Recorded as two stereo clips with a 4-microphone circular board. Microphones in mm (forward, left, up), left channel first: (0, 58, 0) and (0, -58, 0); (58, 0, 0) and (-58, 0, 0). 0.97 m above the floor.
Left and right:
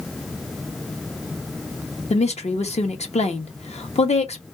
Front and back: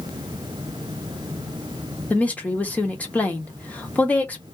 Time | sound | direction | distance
2.1 | a woman speaking | 75° left | 0.9 m